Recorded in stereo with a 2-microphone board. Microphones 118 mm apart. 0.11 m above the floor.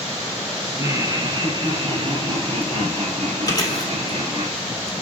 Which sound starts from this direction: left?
Chewing, at 3.5 s.